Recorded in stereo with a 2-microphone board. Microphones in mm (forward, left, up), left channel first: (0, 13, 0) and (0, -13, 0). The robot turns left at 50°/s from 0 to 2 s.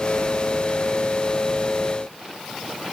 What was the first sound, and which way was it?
Only background noise.